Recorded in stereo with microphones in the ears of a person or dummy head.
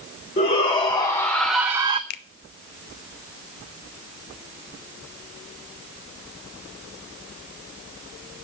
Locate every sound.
0.4 s a shout: 30° left (ahead or behind), 1.1 m; by 2.0 s 30° right (ahead or behind), 0.5 m
2.1 s a finger snap: 50° left (ahead or behind), 0.7 m